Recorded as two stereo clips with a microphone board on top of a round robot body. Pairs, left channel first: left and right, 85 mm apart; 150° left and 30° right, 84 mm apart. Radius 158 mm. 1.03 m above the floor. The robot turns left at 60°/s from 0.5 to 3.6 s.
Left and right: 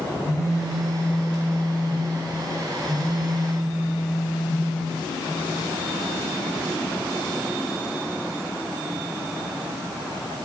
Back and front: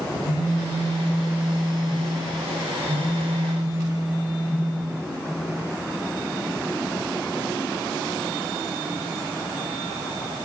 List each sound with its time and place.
0.2 s a phone buzzing: 140° left, 0.7 m; by 4.6 s 45° right, 0.7 m